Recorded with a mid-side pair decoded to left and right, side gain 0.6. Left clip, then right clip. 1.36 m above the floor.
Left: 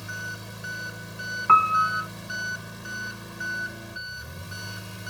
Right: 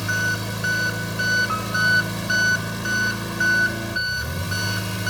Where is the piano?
50° left.